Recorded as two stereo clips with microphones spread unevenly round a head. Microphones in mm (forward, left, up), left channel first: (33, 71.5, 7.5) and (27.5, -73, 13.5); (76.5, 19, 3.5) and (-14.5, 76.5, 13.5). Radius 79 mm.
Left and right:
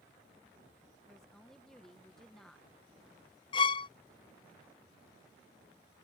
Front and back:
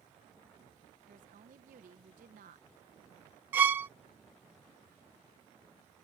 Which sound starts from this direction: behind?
A woman speaking, at 1.1 s.